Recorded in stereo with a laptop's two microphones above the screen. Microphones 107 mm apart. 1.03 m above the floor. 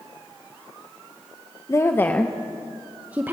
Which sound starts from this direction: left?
A woman speaking, at 1.7 s.